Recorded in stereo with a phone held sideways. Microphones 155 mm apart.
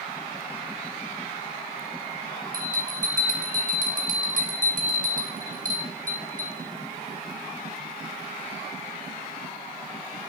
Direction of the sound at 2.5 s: 60° right (ahead or behind).